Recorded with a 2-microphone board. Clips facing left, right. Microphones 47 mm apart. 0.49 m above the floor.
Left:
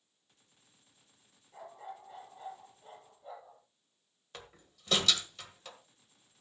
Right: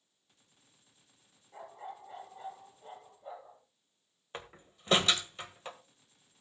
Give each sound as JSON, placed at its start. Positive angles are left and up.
{"t": 1.5, "sound": "a dog barking", "side_deg": -20, "distance_m": 4.0}
{"t": 4.3, "sound": "a door slam", "side_deg": -30, "distance_m": 1.5}